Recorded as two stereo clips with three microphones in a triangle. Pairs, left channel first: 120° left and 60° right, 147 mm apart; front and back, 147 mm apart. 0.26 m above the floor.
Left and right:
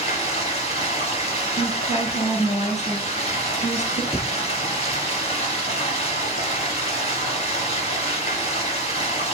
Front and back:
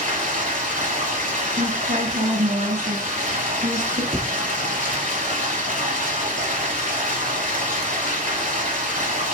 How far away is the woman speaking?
About 4 m.